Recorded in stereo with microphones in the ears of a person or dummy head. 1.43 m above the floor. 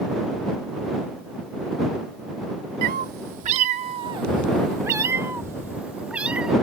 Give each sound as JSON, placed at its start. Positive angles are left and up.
{"t": 2.8, "sound": "a cat meowing", "side_deg": -55}